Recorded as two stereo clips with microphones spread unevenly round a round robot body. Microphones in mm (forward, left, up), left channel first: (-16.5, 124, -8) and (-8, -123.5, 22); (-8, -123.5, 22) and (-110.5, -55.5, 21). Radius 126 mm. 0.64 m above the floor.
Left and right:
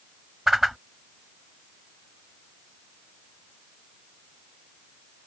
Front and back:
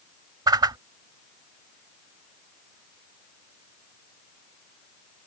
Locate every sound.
0.5 s a whoosh: 170° right